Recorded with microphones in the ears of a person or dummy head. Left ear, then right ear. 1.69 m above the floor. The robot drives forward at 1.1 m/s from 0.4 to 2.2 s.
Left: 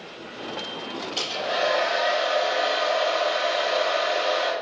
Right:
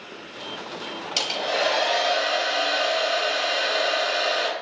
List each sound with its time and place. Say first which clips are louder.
1.2 s a hair dryer: right 2 dB; 55° right (ahead or behind), 3 m; by 4.5 s 75° right (ahead or behind), 2.5 m